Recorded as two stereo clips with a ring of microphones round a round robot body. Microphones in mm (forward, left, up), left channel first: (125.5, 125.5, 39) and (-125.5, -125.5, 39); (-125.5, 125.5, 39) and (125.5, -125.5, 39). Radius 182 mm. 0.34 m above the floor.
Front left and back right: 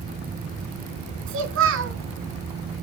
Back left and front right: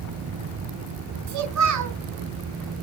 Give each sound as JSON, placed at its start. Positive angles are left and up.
{"t": 1.3, "sound": "a child speaking", "azimuth_deg": -85, "distance_m": 3.5}